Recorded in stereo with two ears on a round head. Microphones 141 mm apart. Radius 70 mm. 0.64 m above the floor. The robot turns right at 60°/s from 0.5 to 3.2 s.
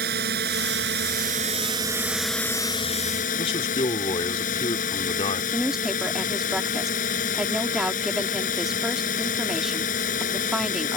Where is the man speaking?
40° left (ahead or behind).